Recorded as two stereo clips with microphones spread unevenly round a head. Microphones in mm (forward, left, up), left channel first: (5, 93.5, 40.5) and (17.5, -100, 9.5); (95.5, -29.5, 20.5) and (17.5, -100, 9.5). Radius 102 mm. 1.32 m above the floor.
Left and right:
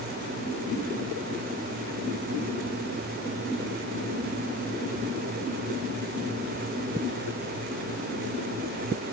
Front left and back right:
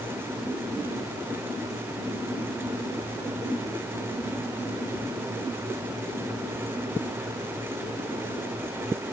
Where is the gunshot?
I don't hear a gunshot.